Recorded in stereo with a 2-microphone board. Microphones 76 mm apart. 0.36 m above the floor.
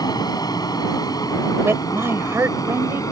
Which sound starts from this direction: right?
A woman speaking, at 1.6 s.